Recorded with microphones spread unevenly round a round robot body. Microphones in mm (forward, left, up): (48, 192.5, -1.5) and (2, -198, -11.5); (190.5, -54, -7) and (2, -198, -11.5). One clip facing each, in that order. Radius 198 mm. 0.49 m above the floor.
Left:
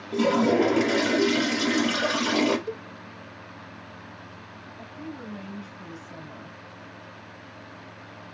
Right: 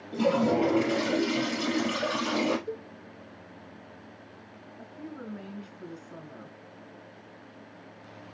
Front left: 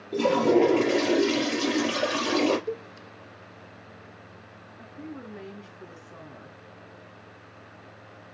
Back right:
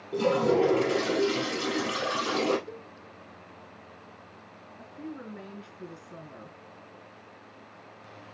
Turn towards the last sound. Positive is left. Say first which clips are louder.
# left 3 dB, even
turn(degrees=135)